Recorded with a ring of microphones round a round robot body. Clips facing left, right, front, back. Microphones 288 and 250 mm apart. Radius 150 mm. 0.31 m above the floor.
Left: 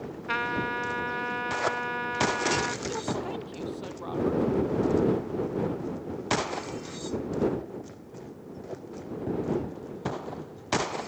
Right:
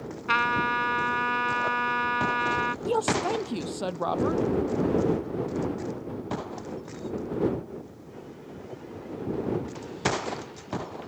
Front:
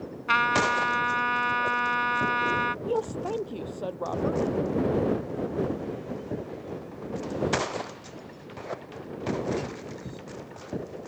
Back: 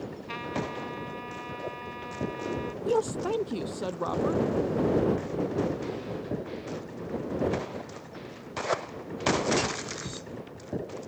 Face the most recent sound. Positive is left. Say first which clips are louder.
# right 6 dB, back 2 dB
turn(degrees=-115)